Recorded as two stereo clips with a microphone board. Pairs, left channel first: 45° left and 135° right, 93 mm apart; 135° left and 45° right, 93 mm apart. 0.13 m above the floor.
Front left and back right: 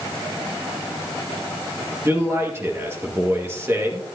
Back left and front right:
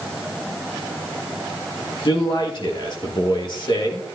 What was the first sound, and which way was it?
A man speaking, 165° left.